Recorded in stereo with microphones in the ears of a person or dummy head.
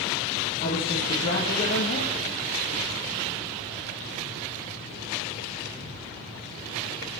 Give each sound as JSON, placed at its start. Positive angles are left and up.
{"t": 0.6, "sound": "a man speaking", "side_deg": 45, "distance_m": 1.6}